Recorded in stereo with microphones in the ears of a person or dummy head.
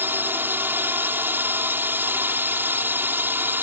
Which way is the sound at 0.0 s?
15° right (ahead or behind).